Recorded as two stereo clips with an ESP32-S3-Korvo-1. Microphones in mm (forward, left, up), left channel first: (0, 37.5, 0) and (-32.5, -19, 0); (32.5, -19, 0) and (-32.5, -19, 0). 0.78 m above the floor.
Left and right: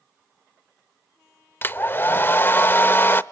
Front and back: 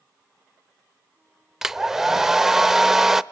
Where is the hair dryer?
100° left, 0.5 m.